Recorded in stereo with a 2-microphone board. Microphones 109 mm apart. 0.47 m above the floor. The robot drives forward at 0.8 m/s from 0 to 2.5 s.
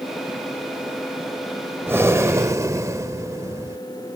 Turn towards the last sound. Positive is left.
turn(degrees=-30)  # may be behind; listen again after turning